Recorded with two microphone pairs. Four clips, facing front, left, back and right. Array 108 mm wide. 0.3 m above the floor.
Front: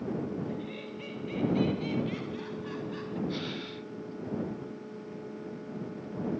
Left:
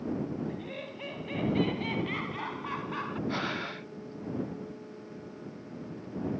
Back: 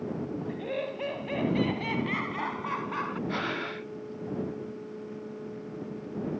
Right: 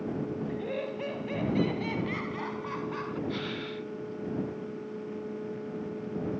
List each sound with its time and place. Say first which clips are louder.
0.5 s laughter: right 6 dB, back 5 dB; 155° right; by 3.2 s 170° left
3.3 s breathing: left 1 dB, back 4 dB; 145° left